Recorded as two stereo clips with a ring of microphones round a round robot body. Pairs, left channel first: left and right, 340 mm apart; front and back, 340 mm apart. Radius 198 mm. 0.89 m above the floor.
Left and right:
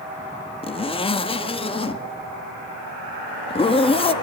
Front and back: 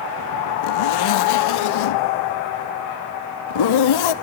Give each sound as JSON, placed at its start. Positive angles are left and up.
{"t": 0.6, "sound": "a zipper", "azimuth_deg": 15, "distance_m": 1.2}